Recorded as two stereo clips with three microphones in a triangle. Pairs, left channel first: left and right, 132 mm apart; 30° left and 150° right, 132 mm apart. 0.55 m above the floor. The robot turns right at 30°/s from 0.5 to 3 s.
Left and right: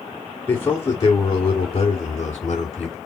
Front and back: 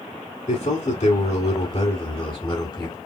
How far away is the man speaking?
About 1.9 m.